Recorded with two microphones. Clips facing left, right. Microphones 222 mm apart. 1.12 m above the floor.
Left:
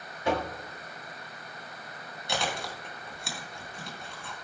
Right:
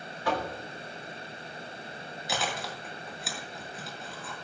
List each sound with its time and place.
0.2 s knocking: 25° left (ahead or behind), 1.9 m
2.3 s chewing: centre (ahead or behind), 2.5 m